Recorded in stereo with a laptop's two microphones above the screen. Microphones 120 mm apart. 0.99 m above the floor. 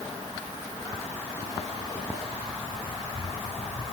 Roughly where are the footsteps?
Left.